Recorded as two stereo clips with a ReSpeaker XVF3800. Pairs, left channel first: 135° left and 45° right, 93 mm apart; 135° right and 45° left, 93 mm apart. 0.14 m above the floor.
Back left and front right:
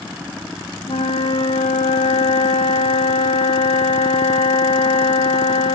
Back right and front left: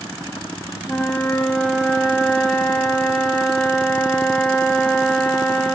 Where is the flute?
140° left, 1.8 m.